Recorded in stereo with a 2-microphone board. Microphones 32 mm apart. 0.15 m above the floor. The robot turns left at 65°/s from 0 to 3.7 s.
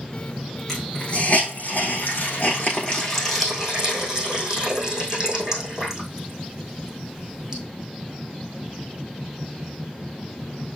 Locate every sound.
0.7 s a hiss: 5° left (ahead or behind), 4 m; by 7.6 s 20° right (ahead or behind), 4 m